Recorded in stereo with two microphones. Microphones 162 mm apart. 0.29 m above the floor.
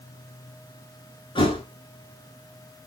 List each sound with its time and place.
1.4 s a thud: 35° left (ahead or behind), 0.9 m